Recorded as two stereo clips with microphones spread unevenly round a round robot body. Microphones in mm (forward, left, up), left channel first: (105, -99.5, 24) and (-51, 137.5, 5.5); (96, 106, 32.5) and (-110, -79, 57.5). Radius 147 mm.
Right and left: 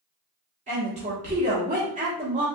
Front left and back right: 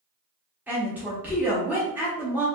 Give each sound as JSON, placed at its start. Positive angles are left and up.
{"t": 0.7, "sound": "a woman speaking", "azimuth_deg": 135, "distance_m": 1.1}